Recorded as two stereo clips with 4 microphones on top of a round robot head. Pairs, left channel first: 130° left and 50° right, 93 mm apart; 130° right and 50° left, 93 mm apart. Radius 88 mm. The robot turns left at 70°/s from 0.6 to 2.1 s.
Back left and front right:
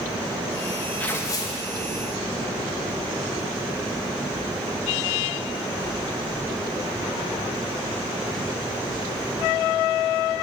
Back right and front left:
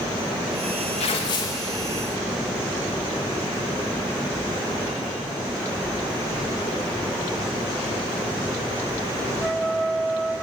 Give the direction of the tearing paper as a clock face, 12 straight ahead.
5 o'clock.